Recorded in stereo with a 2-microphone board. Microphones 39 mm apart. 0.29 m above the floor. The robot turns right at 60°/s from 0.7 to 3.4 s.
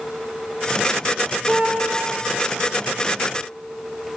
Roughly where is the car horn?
Right.